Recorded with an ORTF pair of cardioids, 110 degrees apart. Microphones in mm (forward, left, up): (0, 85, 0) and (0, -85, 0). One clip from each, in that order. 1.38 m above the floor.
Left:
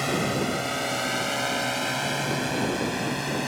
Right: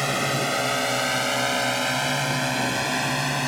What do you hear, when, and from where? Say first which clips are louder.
0.0 s a drone: right 2 dB; 55° right; by 3.5 s 65° right